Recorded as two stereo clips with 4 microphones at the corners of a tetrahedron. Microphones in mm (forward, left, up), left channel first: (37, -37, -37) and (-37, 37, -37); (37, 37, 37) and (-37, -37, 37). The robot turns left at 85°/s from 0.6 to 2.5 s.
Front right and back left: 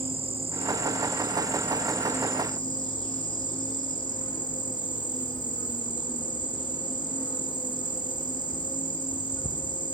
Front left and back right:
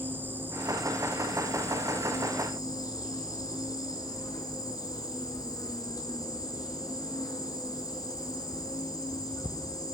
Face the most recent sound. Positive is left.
turn(degrees=-5)